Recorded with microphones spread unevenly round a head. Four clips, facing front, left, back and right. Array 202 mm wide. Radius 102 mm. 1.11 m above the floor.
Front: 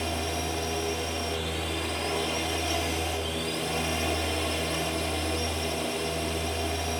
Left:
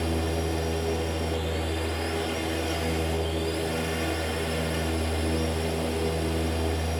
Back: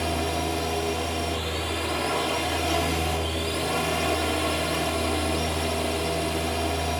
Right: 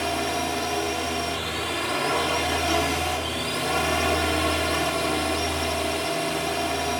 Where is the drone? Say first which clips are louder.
Right 2 dB, back 4 dB; 115° right.